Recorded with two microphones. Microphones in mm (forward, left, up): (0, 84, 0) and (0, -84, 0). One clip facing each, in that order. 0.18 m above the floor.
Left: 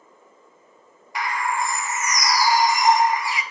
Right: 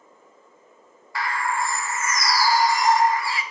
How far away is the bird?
About 0.6 m.